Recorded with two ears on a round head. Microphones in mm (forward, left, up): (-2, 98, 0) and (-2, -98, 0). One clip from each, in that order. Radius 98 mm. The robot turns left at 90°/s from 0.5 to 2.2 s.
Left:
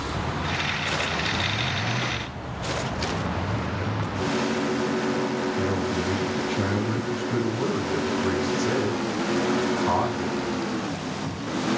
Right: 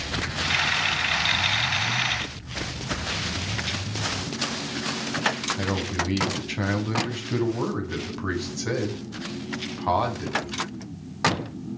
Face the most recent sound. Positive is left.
turn(degrees=-65)  # may be behind; listen again after turning